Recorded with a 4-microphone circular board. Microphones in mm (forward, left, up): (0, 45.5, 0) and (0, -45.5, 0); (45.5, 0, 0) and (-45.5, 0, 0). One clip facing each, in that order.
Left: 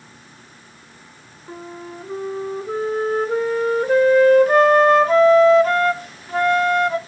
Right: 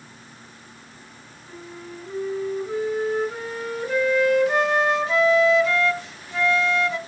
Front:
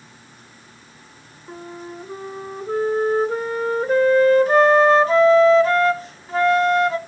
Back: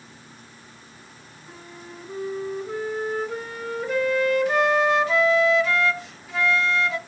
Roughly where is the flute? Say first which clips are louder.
Left 5 dB, front 8 dB; ahead left.